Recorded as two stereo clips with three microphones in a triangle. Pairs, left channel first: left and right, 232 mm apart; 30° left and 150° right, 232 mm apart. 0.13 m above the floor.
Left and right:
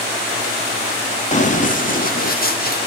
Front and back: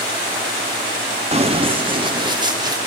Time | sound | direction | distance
1.3 | running footsteps | 150° left | 1.5 m